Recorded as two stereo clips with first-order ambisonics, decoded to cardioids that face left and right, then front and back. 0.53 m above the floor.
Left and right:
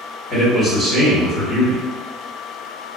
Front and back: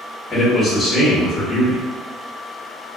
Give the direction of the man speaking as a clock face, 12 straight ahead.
10 o'clock.